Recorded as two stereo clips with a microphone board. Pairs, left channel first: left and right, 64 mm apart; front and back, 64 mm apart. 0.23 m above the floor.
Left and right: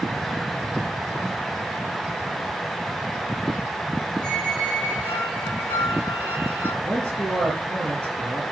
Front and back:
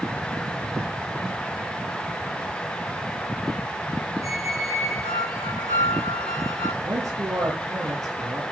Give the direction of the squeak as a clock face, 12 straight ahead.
5 o'clock.